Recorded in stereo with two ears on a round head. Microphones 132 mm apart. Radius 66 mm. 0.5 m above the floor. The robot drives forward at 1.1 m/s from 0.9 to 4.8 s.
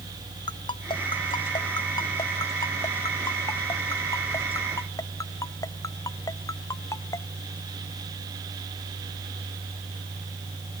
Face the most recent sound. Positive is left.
turn(degrees=25)  # may be behind; listen again after turning